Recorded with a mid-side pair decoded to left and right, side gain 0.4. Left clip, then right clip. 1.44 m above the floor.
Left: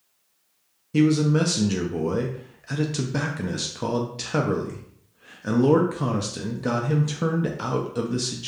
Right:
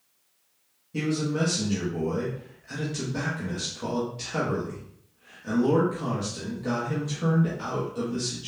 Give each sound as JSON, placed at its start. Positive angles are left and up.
{"t": 0.9, "sound": "a man speaking", "azimuth_deg": 70, "distance_m": 0.5}